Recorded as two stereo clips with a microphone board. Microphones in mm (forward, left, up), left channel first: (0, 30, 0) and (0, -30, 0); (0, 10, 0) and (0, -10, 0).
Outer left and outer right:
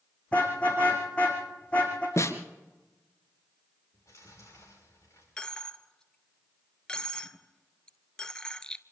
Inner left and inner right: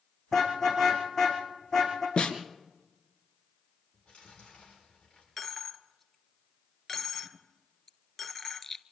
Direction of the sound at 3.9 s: 50° left (ahead or behind).